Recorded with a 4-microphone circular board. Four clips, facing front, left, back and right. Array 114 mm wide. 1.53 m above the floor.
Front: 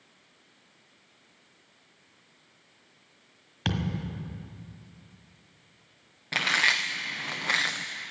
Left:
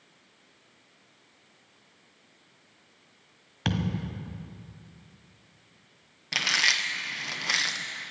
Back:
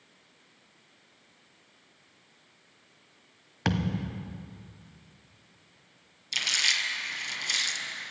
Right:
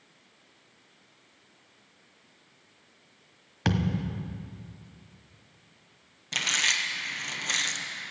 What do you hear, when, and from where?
3.6 s a thud: 155° right, 1.4 m
6.3 s chewing: 10° left, 0.9 m